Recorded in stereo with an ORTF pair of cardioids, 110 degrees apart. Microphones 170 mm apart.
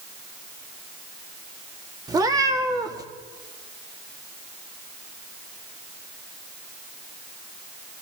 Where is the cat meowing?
25° right, 1.4 m.